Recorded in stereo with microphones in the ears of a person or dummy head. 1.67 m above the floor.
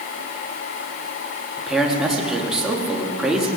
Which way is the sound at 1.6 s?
5° right (ahead or behind).